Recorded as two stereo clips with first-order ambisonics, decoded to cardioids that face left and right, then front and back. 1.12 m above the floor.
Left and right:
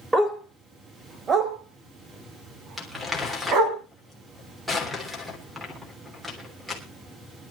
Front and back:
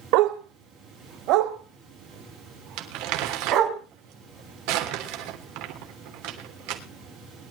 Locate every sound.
0.1 s a dog barking: 170° right, 1.8 m; by 3.8 s 135° right, 4 m
2.8 s crumpling: 175° right, 3 m